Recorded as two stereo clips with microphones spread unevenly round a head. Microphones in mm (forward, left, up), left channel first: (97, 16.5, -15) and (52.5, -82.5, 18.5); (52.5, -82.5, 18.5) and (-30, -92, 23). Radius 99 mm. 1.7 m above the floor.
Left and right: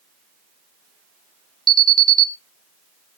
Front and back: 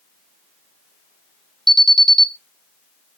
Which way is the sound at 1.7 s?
80° right.